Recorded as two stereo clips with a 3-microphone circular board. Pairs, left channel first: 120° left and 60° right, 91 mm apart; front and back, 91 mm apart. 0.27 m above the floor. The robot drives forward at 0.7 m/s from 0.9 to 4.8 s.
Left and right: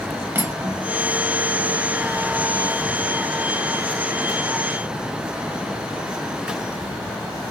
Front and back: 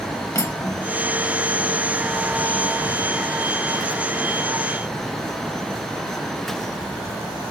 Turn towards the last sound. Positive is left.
turn(degrees=-175)